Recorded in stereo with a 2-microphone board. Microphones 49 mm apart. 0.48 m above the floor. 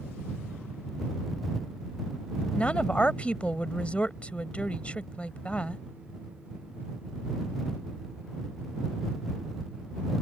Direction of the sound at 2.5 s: 25° left (ahead or behind).